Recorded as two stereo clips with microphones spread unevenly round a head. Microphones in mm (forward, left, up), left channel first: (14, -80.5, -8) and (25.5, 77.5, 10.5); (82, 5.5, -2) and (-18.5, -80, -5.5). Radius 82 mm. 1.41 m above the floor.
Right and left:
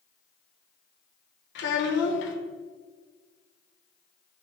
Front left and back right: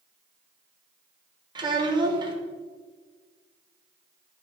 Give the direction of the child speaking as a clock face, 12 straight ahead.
3 o'clock.